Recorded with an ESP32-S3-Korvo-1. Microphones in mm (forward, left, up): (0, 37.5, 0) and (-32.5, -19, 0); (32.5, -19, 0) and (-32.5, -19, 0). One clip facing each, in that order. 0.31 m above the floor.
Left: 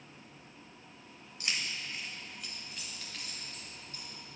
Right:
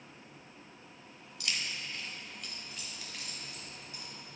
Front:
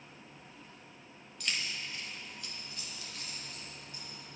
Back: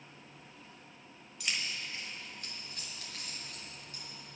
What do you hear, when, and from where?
1.4 s keys jangling: 95° left, 1.0 m; by 4.0 s 165° left, 2.5 m